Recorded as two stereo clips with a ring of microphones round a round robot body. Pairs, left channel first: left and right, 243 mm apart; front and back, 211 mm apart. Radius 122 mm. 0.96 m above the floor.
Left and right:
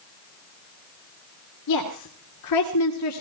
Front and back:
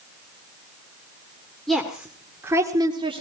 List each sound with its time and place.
1.7 s a woman speaking: 90° left, 2.5 m; by 3.2 s 115° left, 2 m